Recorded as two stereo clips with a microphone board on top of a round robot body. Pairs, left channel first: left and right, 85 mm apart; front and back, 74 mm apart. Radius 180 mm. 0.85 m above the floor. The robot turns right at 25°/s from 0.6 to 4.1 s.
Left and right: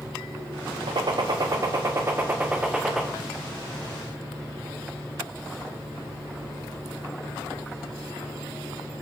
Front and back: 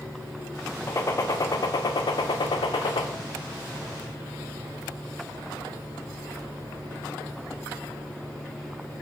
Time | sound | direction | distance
0.9 | a gunshot | 55° right | 0.5 m